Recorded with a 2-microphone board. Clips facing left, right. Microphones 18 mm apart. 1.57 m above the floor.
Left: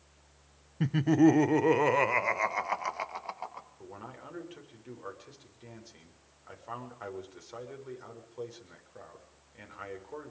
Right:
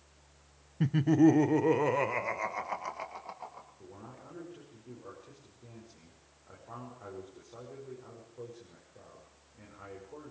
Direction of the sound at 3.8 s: 70° left (ahead or behind).